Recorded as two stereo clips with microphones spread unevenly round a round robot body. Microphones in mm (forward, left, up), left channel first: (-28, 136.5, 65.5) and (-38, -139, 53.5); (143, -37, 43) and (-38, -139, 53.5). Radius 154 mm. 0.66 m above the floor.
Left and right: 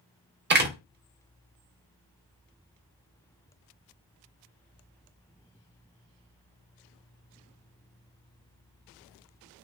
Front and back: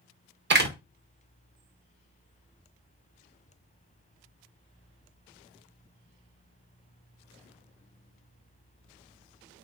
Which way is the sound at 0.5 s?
130° right.